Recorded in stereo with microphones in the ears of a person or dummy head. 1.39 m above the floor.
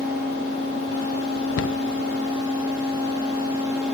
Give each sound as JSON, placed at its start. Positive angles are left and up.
{"t": 1.6, "sound": "a cupboard door", "side_deg": 55, "distance_m": 0.7}